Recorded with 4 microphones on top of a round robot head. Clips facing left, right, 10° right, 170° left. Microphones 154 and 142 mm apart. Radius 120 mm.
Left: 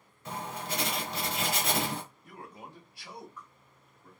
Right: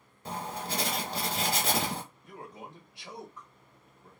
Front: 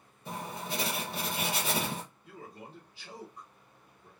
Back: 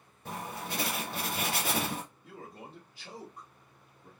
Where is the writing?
140° right, 0.9 m.